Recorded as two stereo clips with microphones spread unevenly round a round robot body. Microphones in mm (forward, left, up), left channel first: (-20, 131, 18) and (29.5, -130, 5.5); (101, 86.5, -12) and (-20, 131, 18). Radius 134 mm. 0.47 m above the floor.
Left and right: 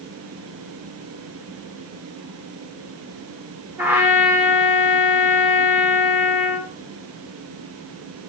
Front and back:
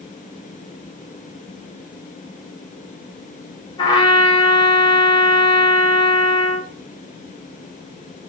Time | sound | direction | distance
3.8 | a trumpet | straight ahead | 1.5 m